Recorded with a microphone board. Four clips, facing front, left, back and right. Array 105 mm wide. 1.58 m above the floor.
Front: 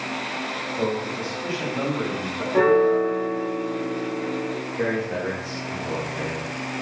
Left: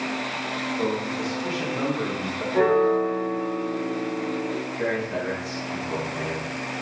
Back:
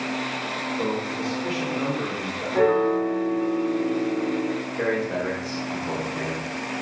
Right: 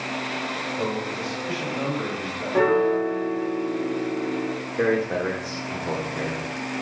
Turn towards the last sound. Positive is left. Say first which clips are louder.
# right 7 dB, even
turn(degrees=-95)